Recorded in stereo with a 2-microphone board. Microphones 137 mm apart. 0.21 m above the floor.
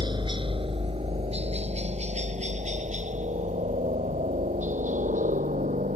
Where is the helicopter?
35° right (ahead or behind); by 6.0 s 70° right (ahead or behind).